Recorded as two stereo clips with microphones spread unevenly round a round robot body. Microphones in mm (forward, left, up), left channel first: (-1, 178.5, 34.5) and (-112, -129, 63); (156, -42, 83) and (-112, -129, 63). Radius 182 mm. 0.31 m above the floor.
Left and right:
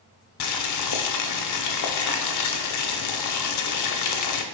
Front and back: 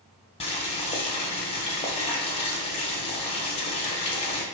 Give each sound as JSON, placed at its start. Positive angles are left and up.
{"t": 0.4, "sound": "boiling", "azimuth_deg": 90, "distance_m": 0.7}